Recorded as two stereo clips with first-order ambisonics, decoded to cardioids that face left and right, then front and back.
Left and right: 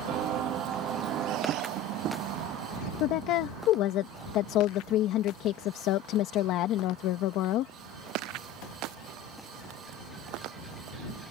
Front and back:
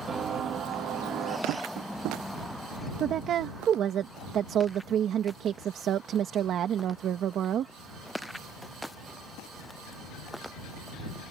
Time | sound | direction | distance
0.1 | footsteps | 120° right | ?
1.5 | tapping | 145° right | ?
3.0 | a woman speaking | 125° left | ?